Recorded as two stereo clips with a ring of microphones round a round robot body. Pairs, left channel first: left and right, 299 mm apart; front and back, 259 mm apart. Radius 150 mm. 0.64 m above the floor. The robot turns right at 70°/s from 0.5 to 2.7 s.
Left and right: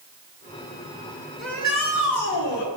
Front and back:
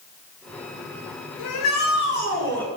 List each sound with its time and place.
1.4 s a shout: straight ahead, 9 m; by 2.7 s 90° left, 9 m